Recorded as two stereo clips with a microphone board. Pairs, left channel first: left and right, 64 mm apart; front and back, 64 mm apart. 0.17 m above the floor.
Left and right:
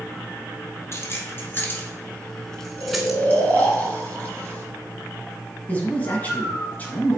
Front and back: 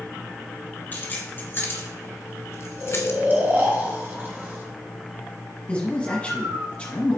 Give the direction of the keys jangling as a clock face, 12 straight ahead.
10 o'clock.